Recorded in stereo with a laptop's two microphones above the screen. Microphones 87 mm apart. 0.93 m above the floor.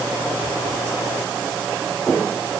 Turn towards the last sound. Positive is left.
No sound to turn to.